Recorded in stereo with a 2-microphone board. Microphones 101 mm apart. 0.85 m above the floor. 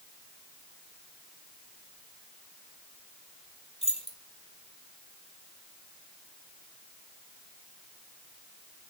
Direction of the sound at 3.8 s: 70° left (ahead or behind).